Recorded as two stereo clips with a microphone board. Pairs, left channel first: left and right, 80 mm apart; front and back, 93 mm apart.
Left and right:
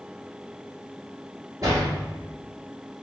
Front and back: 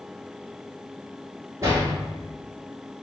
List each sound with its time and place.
1.6 s a door slam: 130° right, 1.9 m